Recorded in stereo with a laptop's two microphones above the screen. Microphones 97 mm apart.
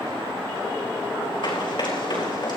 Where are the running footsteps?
60° left (ahead or behind), 5 m; by 2.6 s 50° left (ahead or behind), 5 m.